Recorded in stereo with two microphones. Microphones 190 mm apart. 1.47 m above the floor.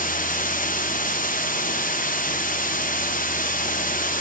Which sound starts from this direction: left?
Running water, at 0.0 s.